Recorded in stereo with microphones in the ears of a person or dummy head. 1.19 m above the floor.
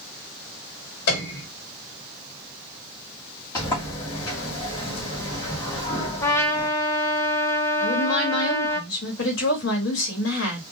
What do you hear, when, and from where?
1.1 s a piano: 65° left (ahead or behind), 1.5 m
3.5 s a sliding door: 25° left (ahead or behind), 2.5 m
6.2 s a trumpet: 15° left (ahead or behind), 0.9 m
7.8 s a woman speaking: 70° left (ahead or behind), 1.8 m